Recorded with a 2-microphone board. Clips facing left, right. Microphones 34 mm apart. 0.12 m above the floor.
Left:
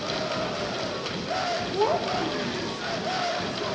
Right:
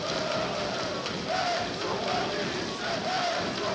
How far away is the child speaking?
About 3.5 m.